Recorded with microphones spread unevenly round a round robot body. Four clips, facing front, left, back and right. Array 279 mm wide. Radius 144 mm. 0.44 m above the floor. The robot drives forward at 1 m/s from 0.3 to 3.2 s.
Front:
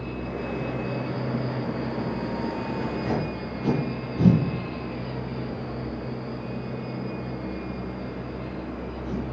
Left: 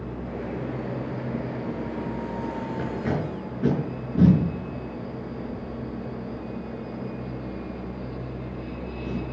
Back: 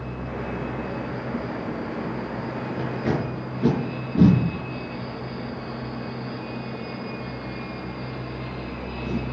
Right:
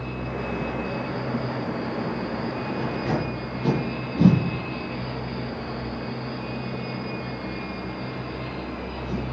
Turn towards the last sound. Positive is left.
turn(degrees=160)